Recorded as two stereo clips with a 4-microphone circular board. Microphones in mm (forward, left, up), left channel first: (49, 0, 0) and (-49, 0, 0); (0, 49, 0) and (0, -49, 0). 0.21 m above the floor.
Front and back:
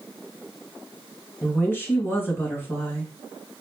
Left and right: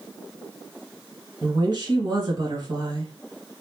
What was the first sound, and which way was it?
A woman speaking, 65° right.